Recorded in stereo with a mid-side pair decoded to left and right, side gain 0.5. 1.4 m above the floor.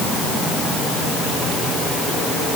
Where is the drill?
No drill in this recording.